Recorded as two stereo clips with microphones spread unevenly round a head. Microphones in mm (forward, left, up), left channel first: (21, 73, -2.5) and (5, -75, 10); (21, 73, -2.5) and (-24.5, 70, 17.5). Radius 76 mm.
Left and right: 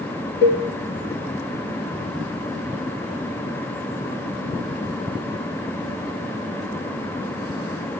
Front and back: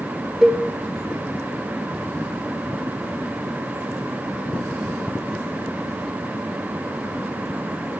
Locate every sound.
0.4 s a cowbell: 110° left, 5.5 m